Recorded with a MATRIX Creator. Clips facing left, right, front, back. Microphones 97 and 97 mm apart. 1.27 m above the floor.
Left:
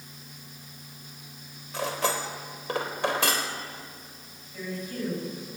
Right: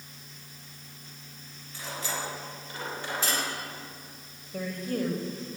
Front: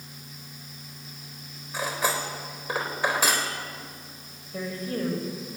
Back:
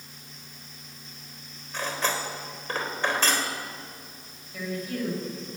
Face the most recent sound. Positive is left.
turn(degrees=-55)